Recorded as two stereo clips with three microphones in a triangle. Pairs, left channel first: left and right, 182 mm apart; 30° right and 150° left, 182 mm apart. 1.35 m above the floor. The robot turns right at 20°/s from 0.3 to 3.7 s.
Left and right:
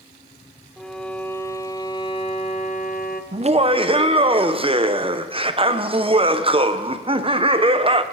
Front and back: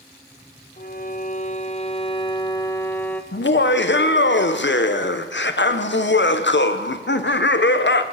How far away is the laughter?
About 0.6 m.